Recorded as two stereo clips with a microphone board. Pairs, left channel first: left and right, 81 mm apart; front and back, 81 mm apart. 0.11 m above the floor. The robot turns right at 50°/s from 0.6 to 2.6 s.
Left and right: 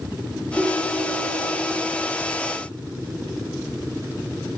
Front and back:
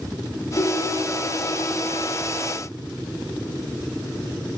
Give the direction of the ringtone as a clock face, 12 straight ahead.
11 o'clock.